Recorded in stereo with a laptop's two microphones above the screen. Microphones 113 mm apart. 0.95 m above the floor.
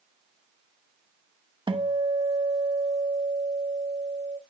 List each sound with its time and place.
1.7 s a guitar: 50° right (ahead or behind), 0.9 m